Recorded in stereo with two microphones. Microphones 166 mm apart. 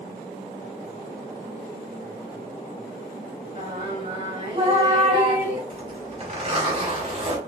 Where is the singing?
40° right (ahead or behind), 4 m.